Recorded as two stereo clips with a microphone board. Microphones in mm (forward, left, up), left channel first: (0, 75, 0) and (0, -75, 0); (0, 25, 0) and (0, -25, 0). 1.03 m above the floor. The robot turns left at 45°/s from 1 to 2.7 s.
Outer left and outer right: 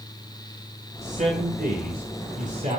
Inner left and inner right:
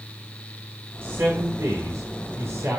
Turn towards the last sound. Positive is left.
turn(degrees=-130)